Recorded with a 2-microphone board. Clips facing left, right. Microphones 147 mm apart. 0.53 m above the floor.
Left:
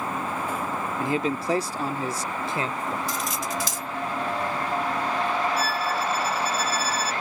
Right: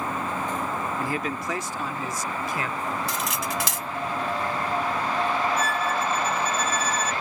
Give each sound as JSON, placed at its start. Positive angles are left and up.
{"t": 1.0, "sound": "a man speaking", "side_deg": 20}
{"t": 3.1, "sound": "cutlery clinking", "side_deg": -75}
{"t": 5.6, "sound": "a violin", "side_deg": 5}